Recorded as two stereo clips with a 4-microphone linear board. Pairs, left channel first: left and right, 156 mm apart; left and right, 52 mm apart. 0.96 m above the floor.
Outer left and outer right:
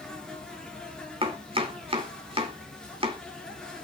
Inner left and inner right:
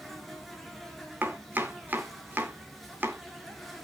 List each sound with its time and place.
0.0 s an insect: 5° left (ahead or behind), 2.5 m
1.2 s chopping: 35° right (ahead or behind), 2 m